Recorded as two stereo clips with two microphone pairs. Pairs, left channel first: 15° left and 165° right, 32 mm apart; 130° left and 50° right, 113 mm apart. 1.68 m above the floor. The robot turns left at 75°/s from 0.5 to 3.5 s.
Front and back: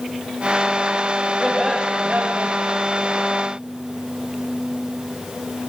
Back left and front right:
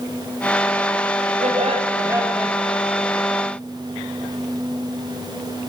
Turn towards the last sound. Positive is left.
turn(degrees=145)